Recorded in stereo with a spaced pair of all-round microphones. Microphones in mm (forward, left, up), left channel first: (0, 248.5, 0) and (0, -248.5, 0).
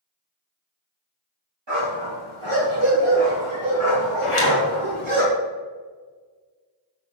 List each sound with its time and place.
1.7 s a dog barking: 60° right (ahead or behind), 3 m; by 5.2 s 75° right (ahead or behind), 4.5 m
4.2 s a zipper: 80° left, 1.6 m